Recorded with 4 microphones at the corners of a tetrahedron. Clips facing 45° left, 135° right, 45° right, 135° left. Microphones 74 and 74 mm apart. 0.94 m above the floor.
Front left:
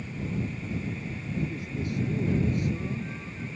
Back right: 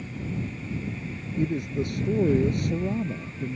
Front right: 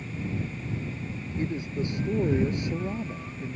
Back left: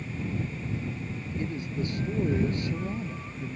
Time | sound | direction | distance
1.4 | a man speaking | 110° right | ?